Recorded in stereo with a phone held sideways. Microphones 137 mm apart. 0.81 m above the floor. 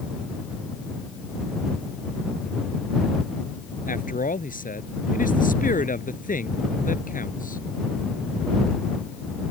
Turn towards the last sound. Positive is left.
turn(degrees=85)